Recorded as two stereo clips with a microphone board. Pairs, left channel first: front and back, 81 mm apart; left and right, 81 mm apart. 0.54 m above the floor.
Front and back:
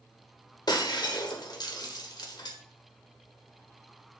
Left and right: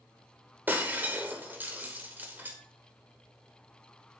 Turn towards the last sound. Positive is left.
turn(degrees=-25)